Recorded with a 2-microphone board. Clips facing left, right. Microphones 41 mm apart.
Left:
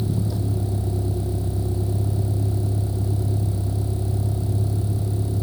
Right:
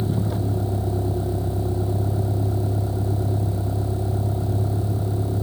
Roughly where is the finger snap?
No finger snap in this recording.